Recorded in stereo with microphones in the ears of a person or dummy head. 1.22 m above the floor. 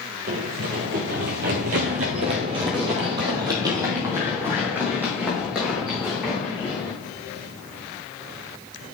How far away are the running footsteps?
About 1.9 m.